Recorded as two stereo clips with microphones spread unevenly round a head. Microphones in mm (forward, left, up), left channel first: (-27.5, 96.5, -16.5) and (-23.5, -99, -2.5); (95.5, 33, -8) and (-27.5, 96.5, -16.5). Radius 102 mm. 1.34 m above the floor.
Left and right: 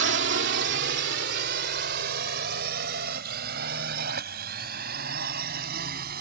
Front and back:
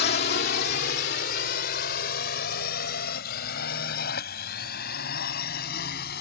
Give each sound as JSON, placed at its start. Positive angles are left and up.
{"t": 0.0, "sound": "a drone", "azimuth_deg": -50}